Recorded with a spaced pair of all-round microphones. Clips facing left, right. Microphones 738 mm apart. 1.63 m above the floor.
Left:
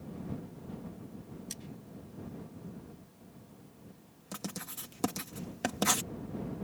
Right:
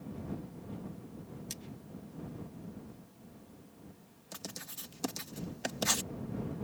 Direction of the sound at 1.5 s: 40° right (ahead or behind).